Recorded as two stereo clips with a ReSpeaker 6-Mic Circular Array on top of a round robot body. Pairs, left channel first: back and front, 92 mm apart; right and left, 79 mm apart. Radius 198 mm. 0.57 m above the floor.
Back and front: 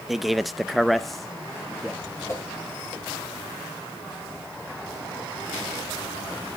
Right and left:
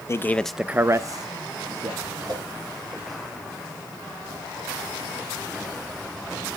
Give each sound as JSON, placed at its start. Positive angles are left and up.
{"t": 0.1, "sound": "a man speaking", "azimuth_deg": -90, "distance_m": 0.7}
{"t": 2.3, "sound": "a whoosh", "azimuth_deg": 120, "distance_m": 4.5}